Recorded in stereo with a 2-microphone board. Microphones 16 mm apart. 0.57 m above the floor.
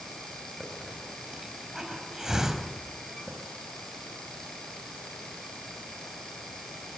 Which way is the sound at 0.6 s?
30° right (ahead or behind).